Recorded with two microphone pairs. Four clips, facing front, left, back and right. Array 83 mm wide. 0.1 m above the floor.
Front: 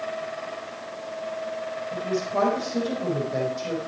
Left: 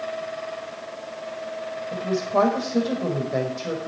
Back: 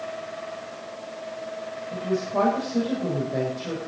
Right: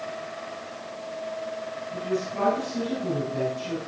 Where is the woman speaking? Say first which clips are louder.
Left 7 dB, back 2 dB; 90° left, 5 m.